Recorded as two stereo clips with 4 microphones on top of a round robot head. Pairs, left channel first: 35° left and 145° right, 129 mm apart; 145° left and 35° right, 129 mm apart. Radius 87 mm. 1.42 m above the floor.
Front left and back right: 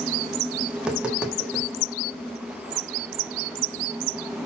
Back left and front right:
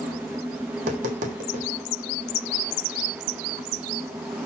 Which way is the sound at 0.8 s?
60° right.